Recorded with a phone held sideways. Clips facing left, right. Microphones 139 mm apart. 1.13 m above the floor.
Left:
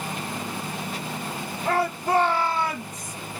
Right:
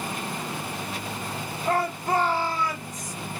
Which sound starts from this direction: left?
A shout, at 1.6 s.